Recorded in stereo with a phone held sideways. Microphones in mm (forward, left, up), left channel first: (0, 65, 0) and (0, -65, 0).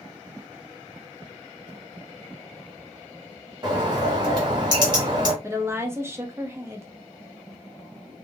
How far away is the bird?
About 1.4 m.